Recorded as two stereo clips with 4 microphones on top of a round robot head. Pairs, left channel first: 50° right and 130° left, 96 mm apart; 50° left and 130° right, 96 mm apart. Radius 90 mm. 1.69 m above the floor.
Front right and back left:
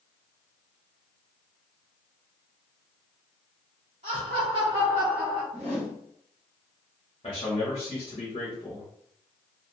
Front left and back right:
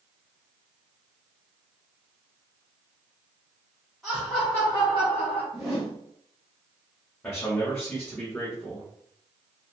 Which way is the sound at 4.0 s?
140° left.